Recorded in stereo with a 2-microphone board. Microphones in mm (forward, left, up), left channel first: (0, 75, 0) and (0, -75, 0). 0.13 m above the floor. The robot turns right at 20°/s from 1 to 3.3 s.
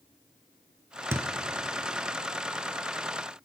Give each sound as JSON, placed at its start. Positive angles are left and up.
{"t": 1.1, "sound": "a thud", "side_deg": -15, "distance_m": 0.6}